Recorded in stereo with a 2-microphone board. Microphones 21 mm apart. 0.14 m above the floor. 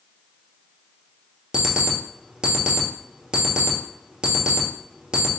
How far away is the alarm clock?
About 1.5 m.